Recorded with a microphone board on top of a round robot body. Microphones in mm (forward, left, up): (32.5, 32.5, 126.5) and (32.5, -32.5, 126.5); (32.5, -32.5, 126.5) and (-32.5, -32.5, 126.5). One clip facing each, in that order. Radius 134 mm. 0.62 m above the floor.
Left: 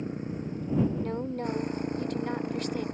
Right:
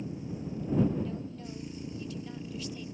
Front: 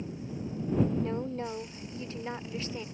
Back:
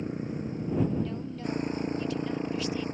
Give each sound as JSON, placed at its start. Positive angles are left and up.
{"t": 0.0, "sound": "a motorcycle", "azimuth_deg": 135}
{"t": 1.0, "sound": "a woman speaking", "azimuth_deg": 55}